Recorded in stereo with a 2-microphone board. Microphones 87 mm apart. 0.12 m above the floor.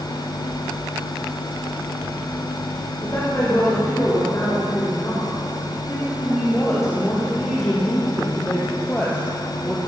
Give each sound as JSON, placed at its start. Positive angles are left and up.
{"t": 3.0, "sound": "a woman speaking", "side_deg": 40, "distance_m": 10.0}